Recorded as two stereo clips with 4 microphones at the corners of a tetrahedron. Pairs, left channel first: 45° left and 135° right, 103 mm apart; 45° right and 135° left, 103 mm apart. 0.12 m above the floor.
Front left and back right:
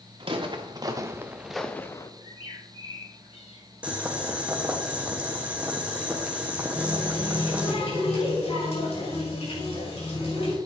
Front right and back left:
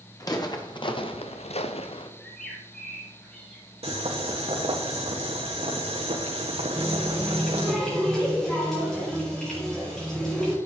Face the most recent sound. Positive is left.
turn(degrees=40)